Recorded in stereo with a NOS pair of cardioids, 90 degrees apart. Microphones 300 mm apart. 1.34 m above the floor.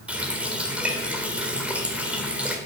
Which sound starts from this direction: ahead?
A running tap, at 0.1 s.